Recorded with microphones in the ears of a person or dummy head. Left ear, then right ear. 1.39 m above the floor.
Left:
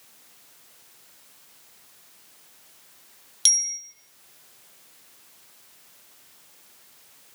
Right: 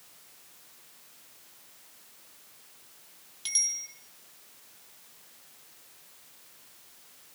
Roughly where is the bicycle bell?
Left.